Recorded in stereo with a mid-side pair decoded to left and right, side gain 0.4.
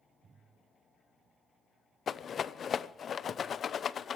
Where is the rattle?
55° left, 0.7 m.